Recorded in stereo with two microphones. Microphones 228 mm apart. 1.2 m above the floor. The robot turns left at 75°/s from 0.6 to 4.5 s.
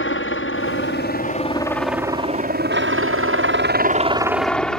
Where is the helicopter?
60° left (ahead or behind); by 4.8 s 5° left (ahead or behind).